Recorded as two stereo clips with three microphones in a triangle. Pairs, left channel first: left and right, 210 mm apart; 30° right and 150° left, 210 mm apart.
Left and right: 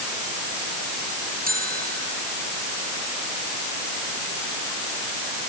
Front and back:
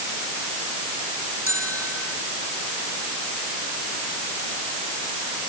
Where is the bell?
45° right.